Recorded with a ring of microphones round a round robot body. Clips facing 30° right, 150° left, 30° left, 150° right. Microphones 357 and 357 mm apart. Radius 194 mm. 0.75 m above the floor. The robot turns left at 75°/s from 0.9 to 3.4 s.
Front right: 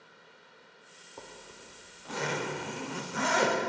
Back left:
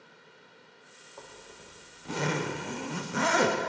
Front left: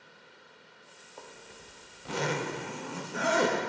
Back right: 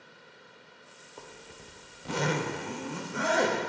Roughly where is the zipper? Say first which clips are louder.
Even, back right 1 dB; right.